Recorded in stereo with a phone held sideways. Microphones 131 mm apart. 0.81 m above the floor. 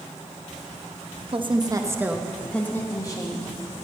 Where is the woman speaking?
40° right (ahead or behind), 1.0 m; by 3.5 s 35° left (ahead or behind), 1.2 m.